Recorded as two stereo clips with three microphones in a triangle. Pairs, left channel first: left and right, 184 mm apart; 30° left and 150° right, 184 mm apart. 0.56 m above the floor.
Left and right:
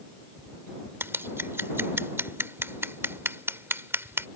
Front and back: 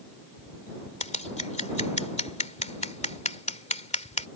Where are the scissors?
15° right.